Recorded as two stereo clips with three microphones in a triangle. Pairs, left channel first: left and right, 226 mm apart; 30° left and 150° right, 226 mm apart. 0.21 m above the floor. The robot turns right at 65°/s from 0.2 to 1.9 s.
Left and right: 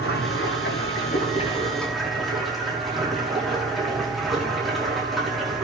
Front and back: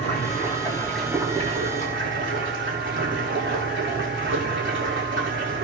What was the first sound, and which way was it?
Running water, 70° left.